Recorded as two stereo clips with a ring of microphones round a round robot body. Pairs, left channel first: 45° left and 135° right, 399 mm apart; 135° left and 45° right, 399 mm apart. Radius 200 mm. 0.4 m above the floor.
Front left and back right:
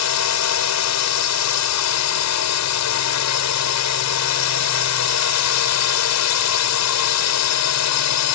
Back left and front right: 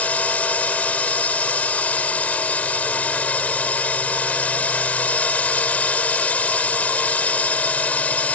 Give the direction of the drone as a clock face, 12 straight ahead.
10 o'clock.